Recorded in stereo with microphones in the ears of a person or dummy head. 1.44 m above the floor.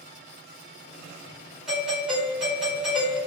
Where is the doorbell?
Centre (ahead or behind), 1.1 m.